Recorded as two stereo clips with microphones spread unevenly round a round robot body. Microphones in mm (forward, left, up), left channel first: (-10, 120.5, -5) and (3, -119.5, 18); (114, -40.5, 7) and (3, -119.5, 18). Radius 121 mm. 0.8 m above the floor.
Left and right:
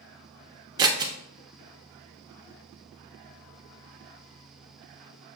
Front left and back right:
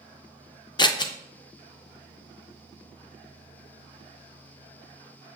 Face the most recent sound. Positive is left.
turn(degrees=-20)